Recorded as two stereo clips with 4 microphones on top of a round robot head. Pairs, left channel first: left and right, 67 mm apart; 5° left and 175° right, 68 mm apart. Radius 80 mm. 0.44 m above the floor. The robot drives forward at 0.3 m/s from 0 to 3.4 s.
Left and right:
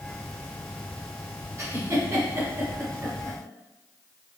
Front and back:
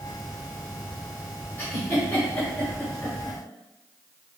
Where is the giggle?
55° right, 1.7 m; by 3.4 s 75° right, 1.5 m.